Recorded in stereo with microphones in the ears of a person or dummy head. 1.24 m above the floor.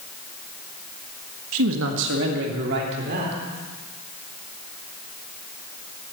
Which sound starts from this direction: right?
A man speaking, at 1.5 s.